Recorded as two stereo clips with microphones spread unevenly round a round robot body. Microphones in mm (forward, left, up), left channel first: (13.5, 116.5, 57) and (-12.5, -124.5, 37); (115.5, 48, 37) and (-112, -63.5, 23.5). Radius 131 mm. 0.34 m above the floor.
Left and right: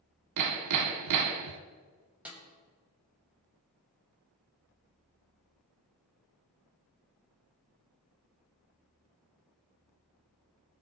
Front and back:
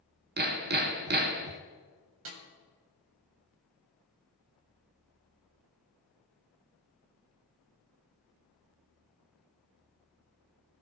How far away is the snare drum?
About 1.8 m.